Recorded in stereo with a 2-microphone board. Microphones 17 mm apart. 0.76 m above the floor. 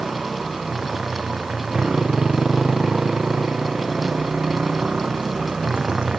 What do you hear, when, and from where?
0.0 s a motorcycle: 75° right (ahead or behind); by 6.2 s 90° right